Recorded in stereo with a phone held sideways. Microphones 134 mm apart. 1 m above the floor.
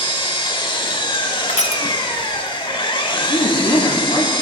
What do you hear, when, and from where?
0.0 s an engine running: 35° left (ahead or behind), 0.8 m
1.5 s crushing: 60° left (ahead or behind), 0.6 m
3.1 s a woman speaking: 45° left (ahead or behind), 2.5 m